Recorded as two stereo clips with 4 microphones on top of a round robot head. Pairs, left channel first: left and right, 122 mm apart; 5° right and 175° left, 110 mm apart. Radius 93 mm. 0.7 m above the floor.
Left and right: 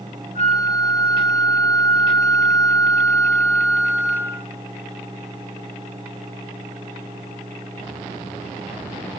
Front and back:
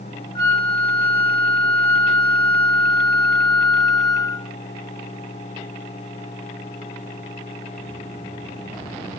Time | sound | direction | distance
0.3 | a flute | 45° left | 0.7 m